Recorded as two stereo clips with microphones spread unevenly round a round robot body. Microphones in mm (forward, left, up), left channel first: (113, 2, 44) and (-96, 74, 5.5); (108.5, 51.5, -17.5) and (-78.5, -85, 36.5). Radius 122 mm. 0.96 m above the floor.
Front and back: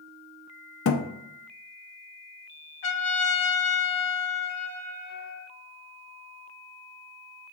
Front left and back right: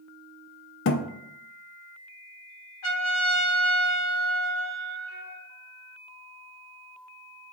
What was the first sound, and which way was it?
A thud, 5° right.